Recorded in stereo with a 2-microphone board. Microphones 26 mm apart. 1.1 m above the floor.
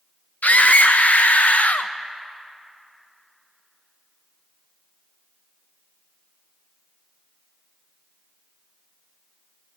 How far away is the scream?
About 0.5 m.